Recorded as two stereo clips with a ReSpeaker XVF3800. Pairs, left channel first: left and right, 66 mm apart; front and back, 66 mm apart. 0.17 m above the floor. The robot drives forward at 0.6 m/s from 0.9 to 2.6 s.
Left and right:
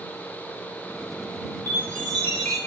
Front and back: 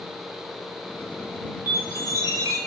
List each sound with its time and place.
1.7 s a chime: 135° left, 0.5 m; by 2.6 s 160° left, 0.9 m